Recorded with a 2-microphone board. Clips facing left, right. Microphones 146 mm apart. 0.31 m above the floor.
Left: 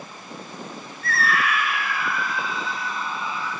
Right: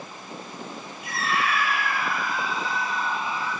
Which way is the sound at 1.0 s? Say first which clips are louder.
Left 2 dB; 15° right (ahead or behind).